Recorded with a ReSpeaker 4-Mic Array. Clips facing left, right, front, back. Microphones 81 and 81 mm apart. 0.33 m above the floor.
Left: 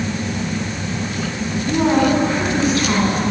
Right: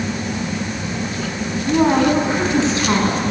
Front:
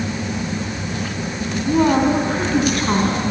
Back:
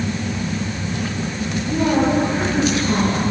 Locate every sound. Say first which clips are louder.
1.7 s a woman speaking: right 1 dB, front 3 dB; 20° right, 3 m; by 3.3 s 30° right, 3.5 m